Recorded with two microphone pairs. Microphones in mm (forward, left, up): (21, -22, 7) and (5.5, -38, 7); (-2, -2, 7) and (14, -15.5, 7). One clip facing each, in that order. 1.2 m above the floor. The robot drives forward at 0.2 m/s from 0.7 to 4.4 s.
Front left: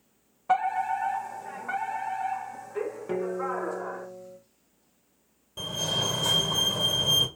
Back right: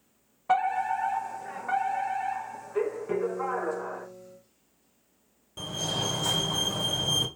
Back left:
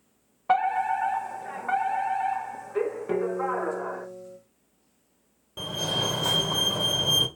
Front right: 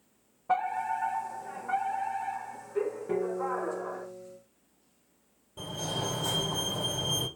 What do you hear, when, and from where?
0.5 s a fire alarm: 145° left, 1.8 m; by 4.1 s 155° left, 2.5 m
3.1 s a guitar: 110° left, 1.3 m; by 4.4 s 120° left, 1.4 m
5.6 s a fire alarm: 140° left, 2 m